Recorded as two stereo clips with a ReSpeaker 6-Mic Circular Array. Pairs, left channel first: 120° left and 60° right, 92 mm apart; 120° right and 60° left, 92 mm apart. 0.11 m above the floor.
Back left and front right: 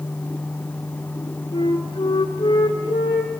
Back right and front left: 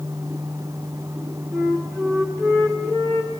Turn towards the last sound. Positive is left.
turn(degrees=115)